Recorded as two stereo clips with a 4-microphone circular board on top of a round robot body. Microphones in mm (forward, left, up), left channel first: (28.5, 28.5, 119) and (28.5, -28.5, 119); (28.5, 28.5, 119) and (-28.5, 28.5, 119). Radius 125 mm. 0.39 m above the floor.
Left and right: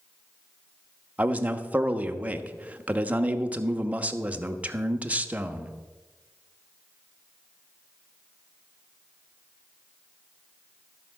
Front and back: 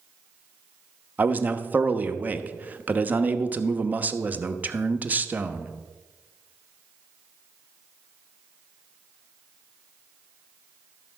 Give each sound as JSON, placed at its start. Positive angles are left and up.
{"t": 1.2, "sound": "a man speaking", "azimuth_deg": -140, "distance_m": 1.0}